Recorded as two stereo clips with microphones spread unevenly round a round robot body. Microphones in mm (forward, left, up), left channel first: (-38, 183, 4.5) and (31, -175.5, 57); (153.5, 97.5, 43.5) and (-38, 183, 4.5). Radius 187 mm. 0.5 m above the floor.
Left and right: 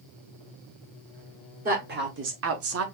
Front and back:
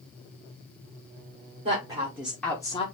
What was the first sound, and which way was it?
A woman speaking, 150° right.